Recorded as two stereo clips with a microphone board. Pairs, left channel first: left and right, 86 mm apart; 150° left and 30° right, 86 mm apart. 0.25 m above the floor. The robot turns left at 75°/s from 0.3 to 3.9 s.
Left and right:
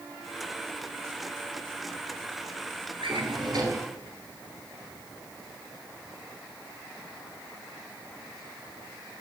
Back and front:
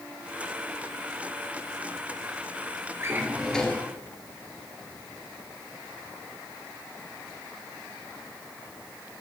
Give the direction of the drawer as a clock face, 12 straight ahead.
3 o'clock.